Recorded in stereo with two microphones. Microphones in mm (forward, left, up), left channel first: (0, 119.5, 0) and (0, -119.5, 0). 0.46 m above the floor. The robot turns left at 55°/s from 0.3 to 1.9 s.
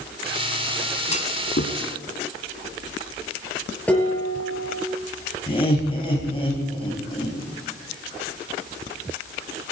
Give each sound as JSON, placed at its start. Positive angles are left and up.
{"t": 1.1, "sound": "a clunk", "side_deg": 30, "distance_m": 1.1}
{"t": 3.9, "sound": "dishes clattering", "side_deg": 5, "distance_m": 5.5}
{"t": 5.5, "sound": "laughter", "side_deg": 25, "distance_m": 3.5}